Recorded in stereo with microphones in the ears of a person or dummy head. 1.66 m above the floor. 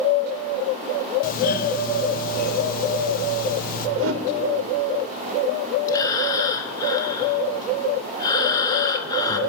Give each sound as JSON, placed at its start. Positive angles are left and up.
{"t": 1.2, "sound": "a doorbell", "side_deg": 45, "distance_m": 0.8}
{"t": 4.0, "sound": "a whoosh", "side_deg": -70, "distance_m": 0.8}
{"t": 5.9, "sound": "breathing", "side_deg": 20, "distance_m": 0.9}